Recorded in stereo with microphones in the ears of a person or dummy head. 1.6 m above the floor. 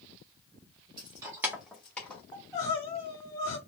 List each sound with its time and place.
1.0 s keys jangling: 30° right (ahead or behind), 0.7 m; by 2.2 s 10° left (ahead or behind), 1.2 m
2.3 s crying: 20° left (ahead or behind), 2 m